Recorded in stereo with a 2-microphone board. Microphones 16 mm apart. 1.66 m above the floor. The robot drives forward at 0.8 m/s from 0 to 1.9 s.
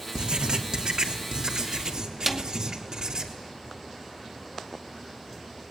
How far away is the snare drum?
About 2.0 m.